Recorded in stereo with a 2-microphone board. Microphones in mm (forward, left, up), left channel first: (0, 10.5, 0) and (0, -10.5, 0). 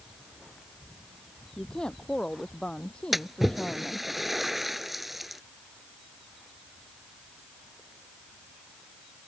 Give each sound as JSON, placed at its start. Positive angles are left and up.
{"t": 1.6, "sound": "a woman speaking", "side_deg": 45}
{"t": 3.1, "sound": "a splash", "side_deg": -10}